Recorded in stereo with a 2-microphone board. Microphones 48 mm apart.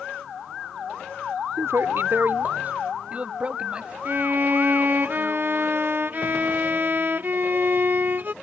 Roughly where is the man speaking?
Right.